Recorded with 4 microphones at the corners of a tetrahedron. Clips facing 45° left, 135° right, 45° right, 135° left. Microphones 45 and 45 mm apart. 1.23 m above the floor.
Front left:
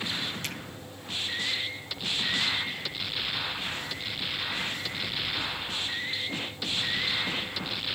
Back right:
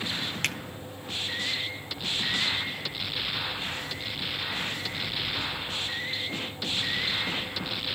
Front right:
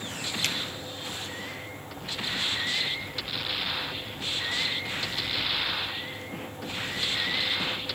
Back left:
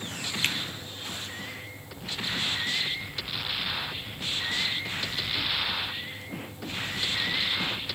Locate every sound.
0.4 s a finger snap: 165° right, 0.7 m